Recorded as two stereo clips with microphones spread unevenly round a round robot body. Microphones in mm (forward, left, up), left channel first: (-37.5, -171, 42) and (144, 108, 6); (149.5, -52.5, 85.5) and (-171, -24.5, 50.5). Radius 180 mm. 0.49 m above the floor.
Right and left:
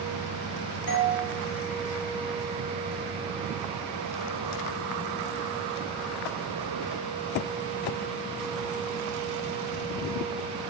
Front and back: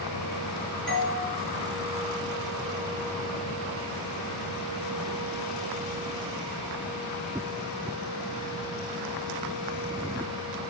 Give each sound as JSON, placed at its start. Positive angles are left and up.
{"t": 0.9, "sound": "a doorbell", "azimuth_deg": -95, "distance_m": 2.5}